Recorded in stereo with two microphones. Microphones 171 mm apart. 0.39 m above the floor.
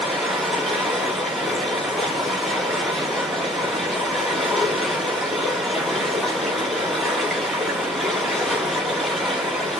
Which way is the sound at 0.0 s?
Centre (ahead or behind).